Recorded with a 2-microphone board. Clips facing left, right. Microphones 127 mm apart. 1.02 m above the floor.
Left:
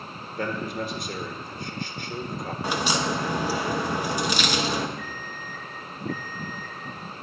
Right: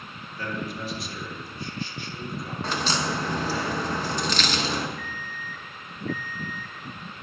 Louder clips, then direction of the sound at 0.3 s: Left 3 dB; 50° left (ahead or behind).